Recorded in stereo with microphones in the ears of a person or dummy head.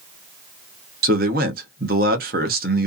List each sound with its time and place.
1.0 s a man speaking: 45° right (ahead or behind), 0.6 m